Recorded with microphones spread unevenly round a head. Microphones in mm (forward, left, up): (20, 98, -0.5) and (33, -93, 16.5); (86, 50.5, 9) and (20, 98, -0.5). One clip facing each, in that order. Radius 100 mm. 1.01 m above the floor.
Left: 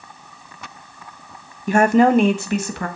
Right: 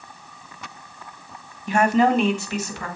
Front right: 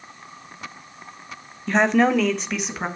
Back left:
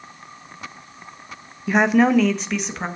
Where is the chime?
I don't hear a chime.